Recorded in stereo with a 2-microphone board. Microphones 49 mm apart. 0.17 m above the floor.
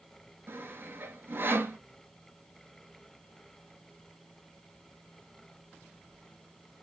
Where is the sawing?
50° right (ahead or behind), 0.6 m.